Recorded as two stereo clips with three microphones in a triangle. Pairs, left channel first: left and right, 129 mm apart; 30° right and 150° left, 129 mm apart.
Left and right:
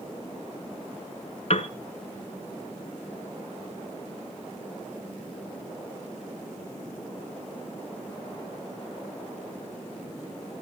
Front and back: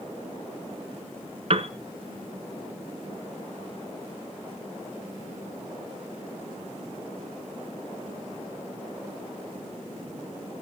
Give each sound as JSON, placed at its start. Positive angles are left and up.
{"t": 1.5, "sound": "a piano", "azimuth_deg": 120, "distance_m": 0.7}